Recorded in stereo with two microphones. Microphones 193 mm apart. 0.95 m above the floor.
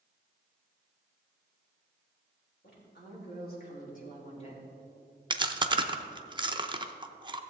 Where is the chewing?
25° right (ahead or behind), 0.6 m.